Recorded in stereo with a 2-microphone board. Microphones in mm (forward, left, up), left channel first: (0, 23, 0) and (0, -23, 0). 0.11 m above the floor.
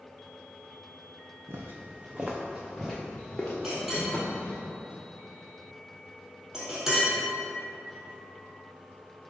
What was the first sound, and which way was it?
Footsteps, 65° right (ahead or behind).